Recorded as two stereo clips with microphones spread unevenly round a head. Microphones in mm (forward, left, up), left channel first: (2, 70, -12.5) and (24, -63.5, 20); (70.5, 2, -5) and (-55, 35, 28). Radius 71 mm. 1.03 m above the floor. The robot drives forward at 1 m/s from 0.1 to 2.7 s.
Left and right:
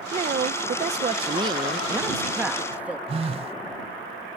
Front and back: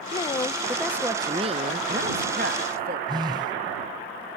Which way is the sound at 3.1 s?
130° right.